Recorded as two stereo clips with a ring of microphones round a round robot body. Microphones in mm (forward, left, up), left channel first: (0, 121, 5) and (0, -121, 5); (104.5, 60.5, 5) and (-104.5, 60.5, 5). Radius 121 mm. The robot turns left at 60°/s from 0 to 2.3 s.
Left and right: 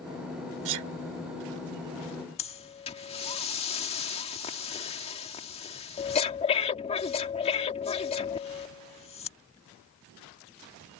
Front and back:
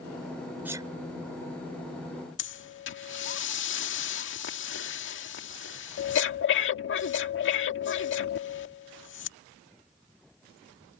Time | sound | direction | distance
0.7 | a sneeze | 95° right | ?
2.4 | breathing | 25° left | ?